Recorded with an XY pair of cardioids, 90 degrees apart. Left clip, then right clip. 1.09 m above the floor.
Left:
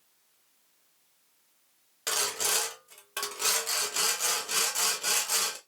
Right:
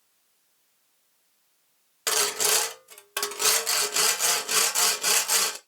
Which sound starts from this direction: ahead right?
Sawing, at 2.1 s.